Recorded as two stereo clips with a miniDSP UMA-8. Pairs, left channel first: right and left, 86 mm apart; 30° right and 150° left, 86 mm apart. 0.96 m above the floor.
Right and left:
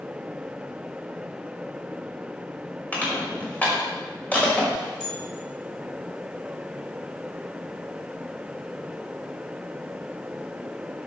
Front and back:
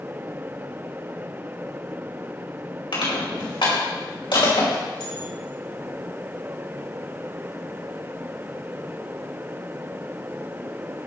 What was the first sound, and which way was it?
Crushing, 20° right.